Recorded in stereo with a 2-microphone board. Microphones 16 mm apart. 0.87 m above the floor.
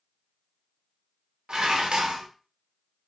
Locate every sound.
1.5 s dishes clattering: 70° right (ahead or behind), 0.7 m